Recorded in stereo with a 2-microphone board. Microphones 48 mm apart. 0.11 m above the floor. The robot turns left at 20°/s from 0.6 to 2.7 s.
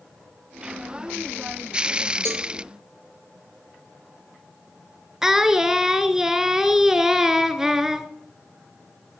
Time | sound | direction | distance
2.2 | a cowbell | 65° right (ahead or behind) | 1.8 m
5.2 | singing | 10° right (ahead or behind) | 1.3 m